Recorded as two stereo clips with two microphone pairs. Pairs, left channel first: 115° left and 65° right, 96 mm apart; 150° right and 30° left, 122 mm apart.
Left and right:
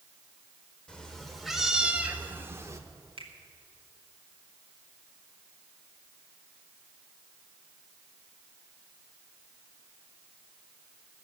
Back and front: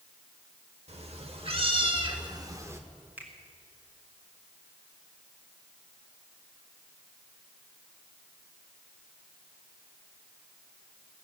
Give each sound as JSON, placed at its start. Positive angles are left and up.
{"t": 0.9, "sound": "a cat meowing", "azimuth_deg": 35, "distance_m": 1.3}
{"t": 3.2, "sound": "a finger snap", "azimuth_deg": -45, "distance_m": 1.7}